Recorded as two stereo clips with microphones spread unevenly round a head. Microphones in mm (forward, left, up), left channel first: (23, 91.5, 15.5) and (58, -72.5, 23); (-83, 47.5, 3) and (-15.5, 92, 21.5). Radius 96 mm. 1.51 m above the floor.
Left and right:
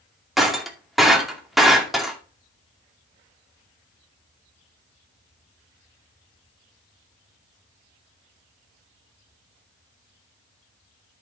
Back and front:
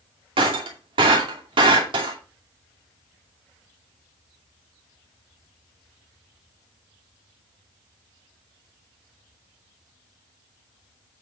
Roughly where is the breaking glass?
Ahead.